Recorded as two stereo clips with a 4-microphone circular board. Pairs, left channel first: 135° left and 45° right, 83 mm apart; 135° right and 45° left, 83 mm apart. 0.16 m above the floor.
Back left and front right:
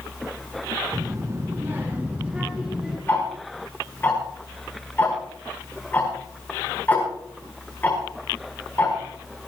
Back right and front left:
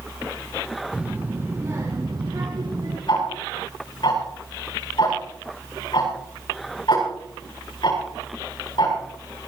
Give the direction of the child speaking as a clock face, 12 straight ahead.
1 o'clock.